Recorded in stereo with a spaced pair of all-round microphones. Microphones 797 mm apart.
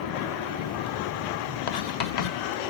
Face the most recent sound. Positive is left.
turn(degrees=60)  # may be behind; listen again after turning